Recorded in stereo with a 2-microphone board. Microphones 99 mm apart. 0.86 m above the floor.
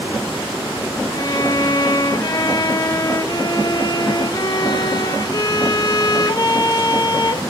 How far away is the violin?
About 0.9 m.